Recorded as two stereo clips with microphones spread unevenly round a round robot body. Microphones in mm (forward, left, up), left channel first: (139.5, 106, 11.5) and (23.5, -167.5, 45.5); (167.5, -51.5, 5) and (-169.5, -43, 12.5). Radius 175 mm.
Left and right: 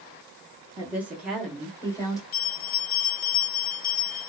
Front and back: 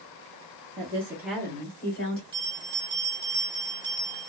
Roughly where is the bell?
Left.